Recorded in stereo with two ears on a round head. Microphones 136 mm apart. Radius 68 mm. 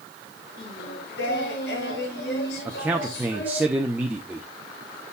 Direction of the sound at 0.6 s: 75° left (ahead or behind).